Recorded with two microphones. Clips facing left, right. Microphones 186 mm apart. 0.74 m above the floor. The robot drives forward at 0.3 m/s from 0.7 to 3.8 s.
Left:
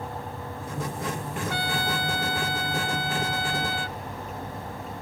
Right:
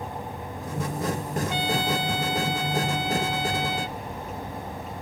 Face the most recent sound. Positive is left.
turn(degrees=-20)  # may be behind; listen again after turning